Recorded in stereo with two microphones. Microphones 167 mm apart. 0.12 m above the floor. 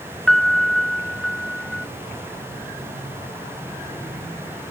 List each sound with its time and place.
0.3 s a piano: centre (ahead or behind)